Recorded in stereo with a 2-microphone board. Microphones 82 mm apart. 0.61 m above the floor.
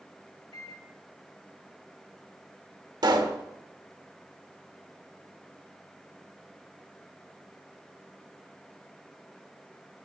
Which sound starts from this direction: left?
A microwave, at 0.5 s.